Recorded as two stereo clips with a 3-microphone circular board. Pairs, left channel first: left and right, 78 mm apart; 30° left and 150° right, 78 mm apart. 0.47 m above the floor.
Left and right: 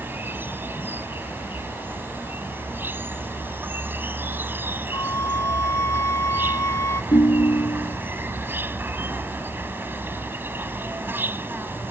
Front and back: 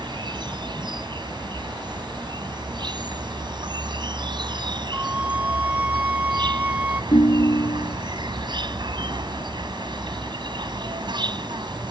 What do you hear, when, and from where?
0.0 s an insect: 150° right
4.9 s a flute: 140° left
7.1 s a ringtone: 65° left